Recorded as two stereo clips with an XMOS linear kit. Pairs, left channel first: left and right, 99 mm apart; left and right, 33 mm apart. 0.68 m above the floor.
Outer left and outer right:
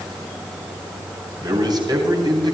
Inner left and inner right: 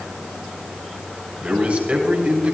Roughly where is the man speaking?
Right.